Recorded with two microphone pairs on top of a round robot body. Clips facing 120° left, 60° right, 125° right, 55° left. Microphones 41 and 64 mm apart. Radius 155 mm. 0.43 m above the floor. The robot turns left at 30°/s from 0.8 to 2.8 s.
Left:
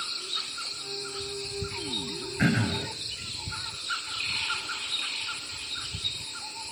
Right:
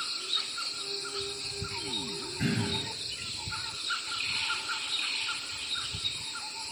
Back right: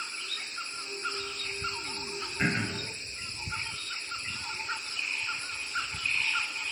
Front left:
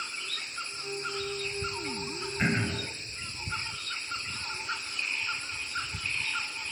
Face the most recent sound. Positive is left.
turn(degrees=130)